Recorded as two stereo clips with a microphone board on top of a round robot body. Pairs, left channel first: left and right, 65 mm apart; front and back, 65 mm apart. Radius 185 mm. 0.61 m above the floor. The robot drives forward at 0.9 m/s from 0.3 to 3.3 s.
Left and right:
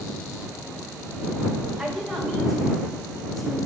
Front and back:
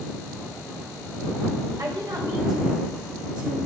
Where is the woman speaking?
175° right, 1.5 m; by 3.5 s straight behind, 2.5 m.